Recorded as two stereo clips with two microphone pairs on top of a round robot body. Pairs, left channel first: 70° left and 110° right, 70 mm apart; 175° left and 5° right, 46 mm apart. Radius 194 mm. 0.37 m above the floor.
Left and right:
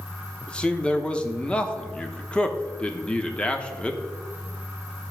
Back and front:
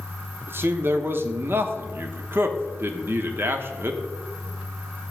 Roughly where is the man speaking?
Ahead.